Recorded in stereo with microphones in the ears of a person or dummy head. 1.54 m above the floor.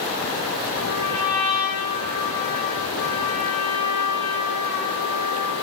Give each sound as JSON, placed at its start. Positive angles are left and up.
{"t": 0.7, "sound": "a trumpet", "side_deg": 60, "distance_m": 5.0}